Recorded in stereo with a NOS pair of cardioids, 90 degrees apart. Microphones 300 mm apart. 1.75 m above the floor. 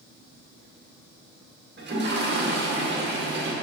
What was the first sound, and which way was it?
A toilet flushing, 35° right.